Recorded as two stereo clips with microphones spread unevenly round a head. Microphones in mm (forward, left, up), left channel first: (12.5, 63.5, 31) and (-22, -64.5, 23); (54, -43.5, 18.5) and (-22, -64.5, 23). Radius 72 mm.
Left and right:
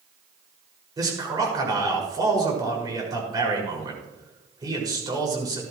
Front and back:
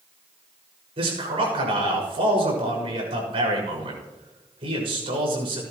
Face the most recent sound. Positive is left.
turn(degrees=-170)